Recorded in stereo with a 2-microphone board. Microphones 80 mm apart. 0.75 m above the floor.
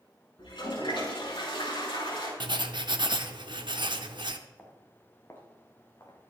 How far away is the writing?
About 0.8 m.